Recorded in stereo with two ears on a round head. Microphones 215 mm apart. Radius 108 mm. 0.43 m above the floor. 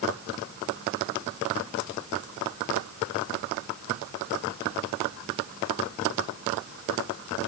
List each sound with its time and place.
Only background noise.